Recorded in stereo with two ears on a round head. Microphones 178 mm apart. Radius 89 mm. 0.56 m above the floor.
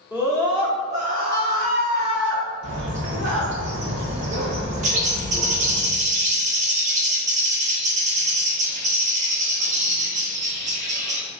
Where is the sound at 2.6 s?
60° right (ahead or behind), 0.9 m.